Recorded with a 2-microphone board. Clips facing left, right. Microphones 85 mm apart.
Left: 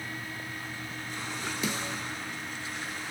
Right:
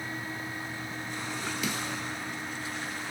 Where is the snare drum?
30° left (ahead or behind), 0.9 m.